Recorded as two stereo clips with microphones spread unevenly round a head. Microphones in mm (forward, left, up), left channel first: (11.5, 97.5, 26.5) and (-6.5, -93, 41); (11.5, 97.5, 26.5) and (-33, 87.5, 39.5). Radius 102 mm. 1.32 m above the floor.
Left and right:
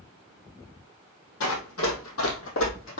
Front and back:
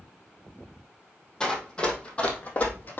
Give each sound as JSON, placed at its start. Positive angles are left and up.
{"t": 1.4, "sound": "running footsteps", "azimuth_deg": 95, "distance_m": 2.5}